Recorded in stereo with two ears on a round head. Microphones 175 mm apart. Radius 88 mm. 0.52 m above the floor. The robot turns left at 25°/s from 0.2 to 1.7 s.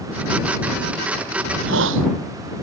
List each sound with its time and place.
1.4 s a hiss: 85° right; by 2.1 s 75° right (ahead or behind)